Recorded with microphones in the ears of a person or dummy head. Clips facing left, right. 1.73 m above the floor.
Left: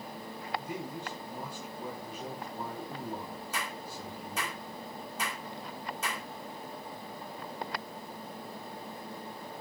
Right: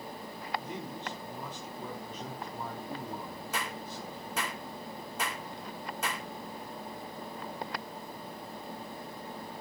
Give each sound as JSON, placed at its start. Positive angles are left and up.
{"t": 0.6, "sound": "a man speaking", "side_deg": 10, "distance_m": 5.5}
{"t": 3.5, "sound": "a clap", "side_deg": -45, "distance_m": 4.0}